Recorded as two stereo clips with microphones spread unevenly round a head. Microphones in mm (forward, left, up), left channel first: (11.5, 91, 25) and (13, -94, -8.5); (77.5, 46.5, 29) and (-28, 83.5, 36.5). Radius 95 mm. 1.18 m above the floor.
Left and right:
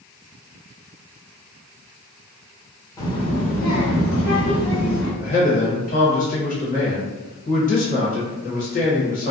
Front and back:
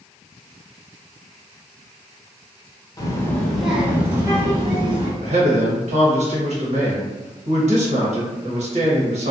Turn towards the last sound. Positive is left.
turn(degrees=145)